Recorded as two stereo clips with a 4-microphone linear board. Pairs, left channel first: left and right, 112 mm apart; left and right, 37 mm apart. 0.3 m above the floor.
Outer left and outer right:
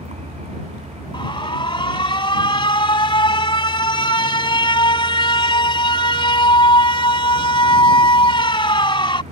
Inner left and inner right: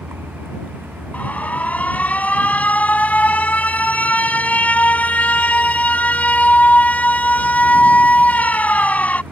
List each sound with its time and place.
0.0 s a vehicle: 75° right (ahead or behind)
1.1 s an alarm: 45° left (ahead or behind)